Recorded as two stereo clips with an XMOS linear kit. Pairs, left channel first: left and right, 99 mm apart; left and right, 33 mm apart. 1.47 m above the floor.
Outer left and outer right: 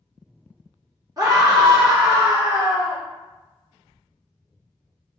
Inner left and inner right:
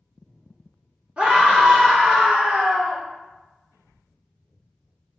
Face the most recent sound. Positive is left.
turn(degrees=-35)  # may be behind; listen again after turning